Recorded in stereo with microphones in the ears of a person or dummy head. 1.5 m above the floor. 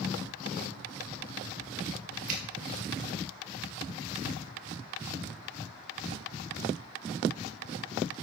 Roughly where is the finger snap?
Right.